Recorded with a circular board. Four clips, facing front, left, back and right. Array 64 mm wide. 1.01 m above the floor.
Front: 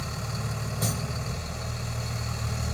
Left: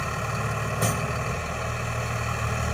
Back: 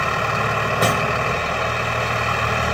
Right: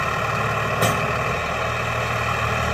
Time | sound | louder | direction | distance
0.0 | a vehicle | right 7 dB, back 16 dB | 155° right | ?